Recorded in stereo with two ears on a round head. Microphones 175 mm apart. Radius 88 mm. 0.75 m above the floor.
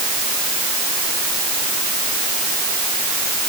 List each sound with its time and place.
Only background noise.